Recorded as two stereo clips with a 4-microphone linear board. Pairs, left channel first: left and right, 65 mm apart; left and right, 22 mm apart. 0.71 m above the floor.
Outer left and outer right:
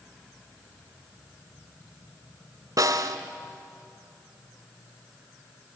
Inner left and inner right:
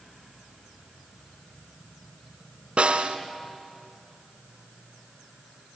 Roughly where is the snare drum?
Right.